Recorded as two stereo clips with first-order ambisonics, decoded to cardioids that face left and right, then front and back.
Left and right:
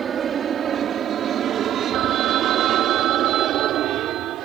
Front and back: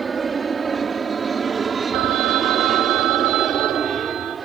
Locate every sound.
0.0 s an aircraft: 120° right; by 4.5 s 115° right
1.9 s a phone ringing: 140° right